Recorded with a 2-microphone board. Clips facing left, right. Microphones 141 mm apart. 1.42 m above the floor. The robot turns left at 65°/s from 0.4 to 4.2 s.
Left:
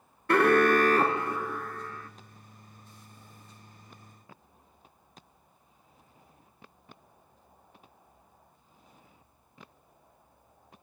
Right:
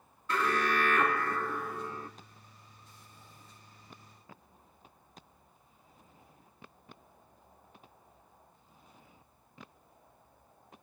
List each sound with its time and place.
0.3 s an alarm: 75° left, 0.8 m; by 2.1 s 35° right, 0.8 m